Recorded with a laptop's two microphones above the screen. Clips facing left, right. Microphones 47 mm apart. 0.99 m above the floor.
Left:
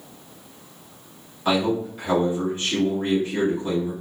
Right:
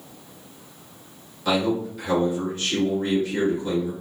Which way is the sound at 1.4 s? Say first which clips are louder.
Left 1 dB; 30° left (ahead or behind).